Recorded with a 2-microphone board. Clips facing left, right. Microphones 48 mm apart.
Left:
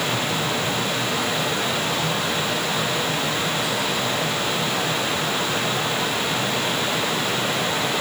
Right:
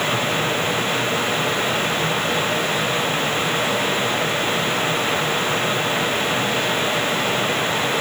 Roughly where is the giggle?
I don't hear a giggle.